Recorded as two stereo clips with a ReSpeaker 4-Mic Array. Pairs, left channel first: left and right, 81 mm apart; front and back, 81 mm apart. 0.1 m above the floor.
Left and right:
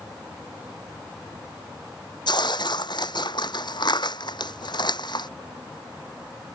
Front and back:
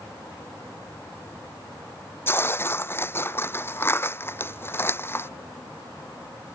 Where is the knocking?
I don't hear knocking.